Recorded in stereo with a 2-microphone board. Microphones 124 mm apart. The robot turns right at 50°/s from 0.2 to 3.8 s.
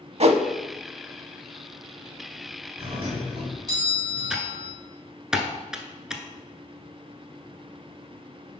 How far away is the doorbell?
About 2.0 m.